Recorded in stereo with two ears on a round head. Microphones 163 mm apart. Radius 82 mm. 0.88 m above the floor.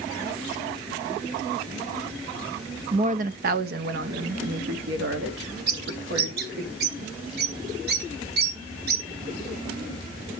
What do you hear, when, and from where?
2.9 s a woman speaking: 40° right (ahead or behind), 0.8 m; by 6.7 s 65° right (ahead or behind), 2.5 m
5.7 s a bird: 60° right (ahead or behind), 2.5 m